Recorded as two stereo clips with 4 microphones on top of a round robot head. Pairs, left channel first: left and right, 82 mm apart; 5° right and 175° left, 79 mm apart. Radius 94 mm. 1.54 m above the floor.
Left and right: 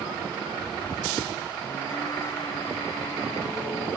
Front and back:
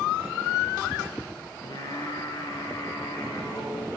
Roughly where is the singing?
Ahead left.